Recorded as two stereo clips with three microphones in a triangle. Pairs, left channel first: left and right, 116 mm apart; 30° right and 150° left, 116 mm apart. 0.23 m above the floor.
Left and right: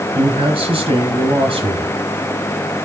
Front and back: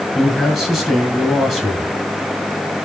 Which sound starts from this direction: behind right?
A man speaking, at 0.1 s.